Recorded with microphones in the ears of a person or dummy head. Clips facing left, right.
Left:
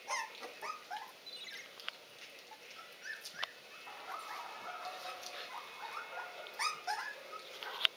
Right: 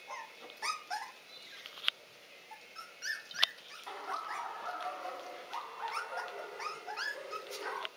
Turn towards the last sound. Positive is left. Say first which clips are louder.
# right 6 dB
turn(degrees=-50)  # may be behind; listen again after turning